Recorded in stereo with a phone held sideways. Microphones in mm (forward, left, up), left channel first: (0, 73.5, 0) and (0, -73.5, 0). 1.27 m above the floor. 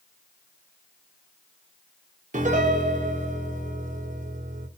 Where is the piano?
60° right (ahead or behind), 0.6 m.